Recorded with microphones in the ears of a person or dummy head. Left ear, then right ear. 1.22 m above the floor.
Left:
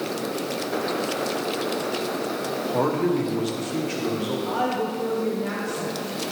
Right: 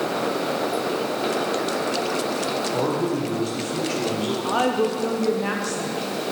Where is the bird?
No bird in this recording.